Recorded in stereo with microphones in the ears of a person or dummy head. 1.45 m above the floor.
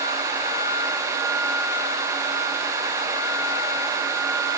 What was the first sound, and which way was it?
Only background noise.